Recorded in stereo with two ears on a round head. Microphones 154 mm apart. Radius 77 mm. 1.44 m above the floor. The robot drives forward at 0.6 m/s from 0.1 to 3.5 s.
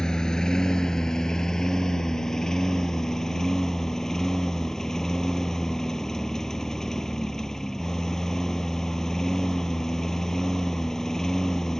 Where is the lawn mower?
5° left (ahead or behind).